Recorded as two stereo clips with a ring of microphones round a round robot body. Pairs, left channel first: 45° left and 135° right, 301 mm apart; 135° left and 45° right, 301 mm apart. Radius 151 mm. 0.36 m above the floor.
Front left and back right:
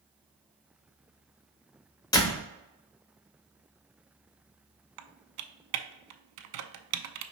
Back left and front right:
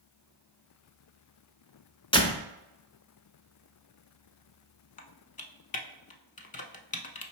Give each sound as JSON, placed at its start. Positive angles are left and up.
{"t": 2.1, "sound": "a door slam", "azimuth_deg": 95, "distance_m": 0.8}
{"t": 5.0, "sound": "typing on a keyboard", "azimuth_deg": -160, "distance_m": 0.5}